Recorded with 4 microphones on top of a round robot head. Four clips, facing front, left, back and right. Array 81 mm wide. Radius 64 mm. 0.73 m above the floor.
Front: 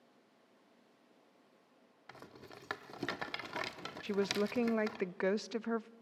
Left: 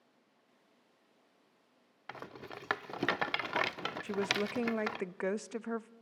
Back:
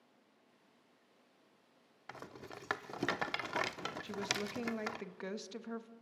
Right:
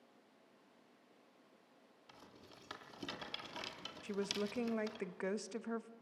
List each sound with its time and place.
2.1 s a rattle: 110° left, 0.6 m
4.0 s a woman speaking: 30° left, 0.6 m